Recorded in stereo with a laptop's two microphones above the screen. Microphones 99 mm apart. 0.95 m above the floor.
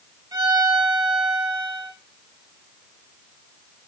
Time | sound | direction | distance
0.3 | a violin | 45° right (ahead or behind) | 4 m